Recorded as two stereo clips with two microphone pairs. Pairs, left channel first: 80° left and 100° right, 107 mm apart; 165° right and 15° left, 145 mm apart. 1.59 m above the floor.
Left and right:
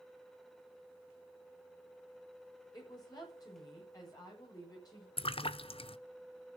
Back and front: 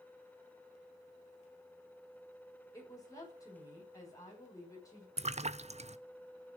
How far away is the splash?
About 0.6 m.